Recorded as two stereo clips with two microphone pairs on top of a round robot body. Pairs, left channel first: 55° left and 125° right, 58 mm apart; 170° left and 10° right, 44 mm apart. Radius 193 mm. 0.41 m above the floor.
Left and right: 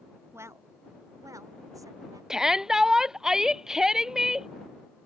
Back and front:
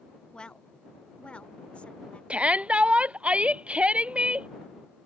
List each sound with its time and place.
0.3 s a woman speaking: 125° right
2.3 s a shout: 45° right